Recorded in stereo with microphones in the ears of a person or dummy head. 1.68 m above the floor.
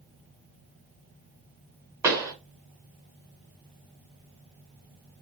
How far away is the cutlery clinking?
I don't hear cutlery clinking.